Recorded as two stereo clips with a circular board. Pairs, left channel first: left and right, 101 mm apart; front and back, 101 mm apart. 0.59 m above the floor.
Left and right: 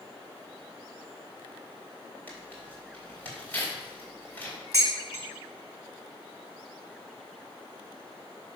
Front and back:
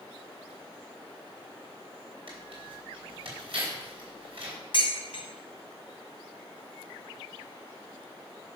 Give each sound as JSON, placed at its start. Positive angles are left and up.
{"t": 2.3, "sound": "tearing paper", "azimuth_deg": 165, "distance_m": 3.5}
{"t": 4.7, "sound": "dishes clattering", "azimuth_deg": 30, "distance_m": 2.5}